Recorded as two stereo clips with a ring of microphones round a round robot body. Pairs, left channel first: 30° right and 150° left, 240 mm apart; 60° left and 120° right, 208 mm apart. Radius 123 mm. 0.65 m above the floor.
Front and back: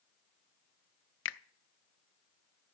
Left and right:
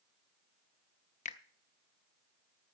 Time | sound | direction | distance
1.2 | a finger snap | 5° left | 0.7 m